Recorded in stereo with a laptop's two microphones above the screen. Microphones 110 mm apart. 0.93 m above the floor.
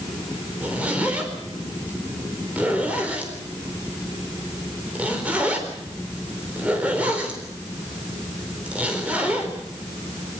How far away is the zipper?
About 4 m.